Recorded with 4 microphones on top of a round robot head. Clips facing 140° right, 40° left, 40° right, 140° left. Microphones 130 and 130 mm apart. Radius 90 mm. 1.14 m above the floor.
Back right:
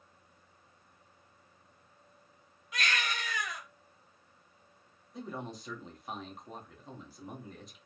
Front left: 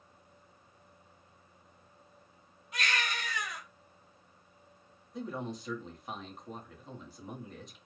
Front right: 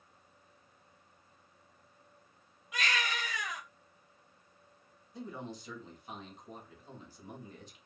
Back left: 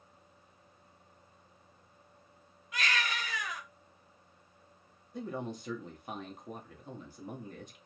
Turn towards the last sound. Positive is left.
turn(degrees=130)